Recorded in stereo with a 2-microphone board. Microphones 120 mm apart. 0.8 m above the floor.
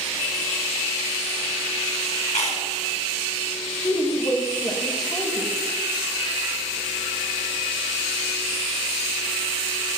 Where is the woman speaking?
35° left (ahead or behind), 2.5 m.